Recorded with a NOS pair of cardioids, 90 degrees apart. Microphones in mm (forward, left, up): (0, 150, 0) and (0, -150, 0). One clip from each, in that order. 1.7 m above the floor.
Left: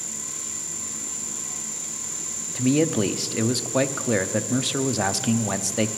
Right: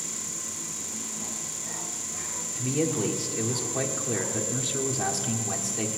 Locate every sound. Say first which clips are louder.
2.5 s a man speaking: left 6 dB; 50° left, 0.8 m